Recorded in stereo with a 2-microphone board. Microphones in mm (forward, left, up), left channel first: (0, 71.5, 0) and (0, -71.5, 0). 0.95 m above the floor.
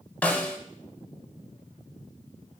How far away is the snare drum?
About 1.2 m.